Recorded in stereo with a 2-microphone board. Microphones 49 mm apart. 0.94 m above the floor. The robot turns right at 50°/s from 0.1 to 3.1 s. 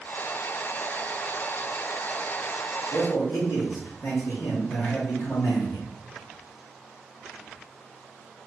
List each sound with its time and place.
2.9 s a man speaking: 70° left (ahead or behind), 2.5 m; by 5.8 s 65° left (ahead or behind), 2.5 m